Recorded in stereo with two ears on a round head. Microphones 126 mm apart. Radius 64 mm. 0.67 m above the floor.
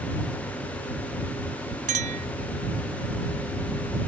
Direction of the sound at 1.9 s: 55° right (ahead or behind).